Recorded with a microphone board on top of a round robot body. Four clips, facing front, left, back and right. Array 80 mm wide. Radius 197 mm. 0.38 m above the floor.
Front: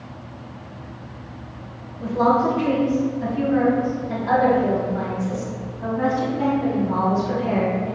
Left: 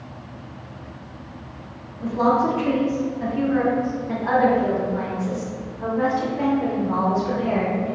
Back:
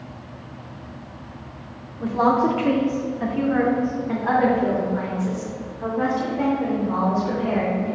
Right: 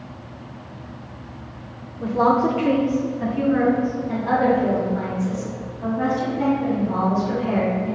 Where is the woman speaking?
150° right, 1.9 m; by 8.0 s 130° left, 4 m.